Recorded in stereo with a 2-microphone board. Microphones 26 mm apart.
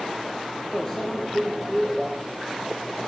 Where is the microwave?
25° left (ahead or behind), 2.5 m.